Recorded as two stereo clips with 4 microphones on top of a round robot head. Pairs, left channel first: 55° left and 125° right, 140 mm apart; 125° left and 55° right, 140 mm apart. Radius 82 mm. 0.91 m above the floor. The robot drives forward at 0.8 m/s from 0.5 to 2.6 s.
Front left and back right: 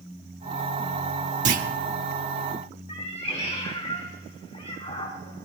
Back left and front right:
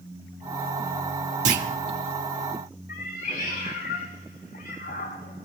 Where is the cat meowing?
100° left, 5 m.